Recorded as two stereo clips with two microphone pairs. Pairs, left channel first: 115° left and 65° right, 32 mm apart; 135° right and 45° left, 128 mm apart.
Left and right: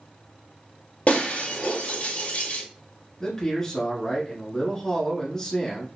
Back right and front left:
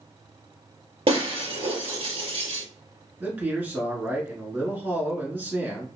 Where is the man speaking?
90° left, 1.4 m.